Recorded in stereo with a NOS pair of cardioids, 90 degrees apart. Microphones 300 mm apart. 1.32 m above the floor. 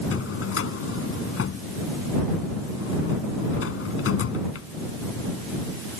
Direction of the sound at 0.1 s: 50° left.